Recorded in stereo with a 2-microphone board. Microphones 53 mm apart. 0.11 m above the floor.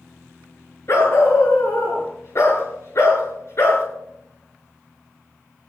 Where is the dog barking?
55° left (ahead or behind), 7 m.